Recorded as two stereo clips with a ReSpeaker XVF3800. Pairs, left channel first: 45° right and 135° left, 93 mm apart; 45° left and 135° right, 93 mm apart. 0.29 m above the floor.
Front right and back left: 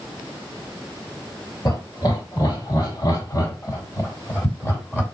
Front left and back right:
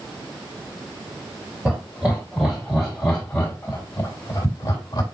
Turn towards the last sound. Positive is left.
turn(degrees=20)